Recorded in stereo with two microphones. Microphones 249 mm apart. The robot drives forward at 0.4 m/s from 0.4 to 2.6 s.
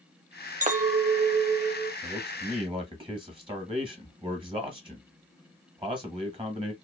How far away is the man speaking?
About 1.0 m.